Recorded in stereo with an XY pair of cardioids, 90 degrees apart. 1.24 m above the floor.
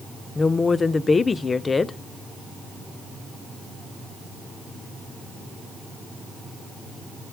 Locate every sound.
0.3 s a woman speaking: 35° left, 0.5 m